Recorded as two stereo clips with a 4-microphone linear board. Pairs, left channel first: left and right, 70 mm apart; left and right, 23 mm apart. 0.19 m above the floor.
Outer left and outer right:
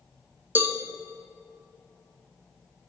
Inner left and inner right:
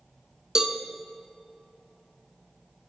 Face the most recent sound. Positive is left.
turn(degrees=-30)  # may be behind; listen again after turning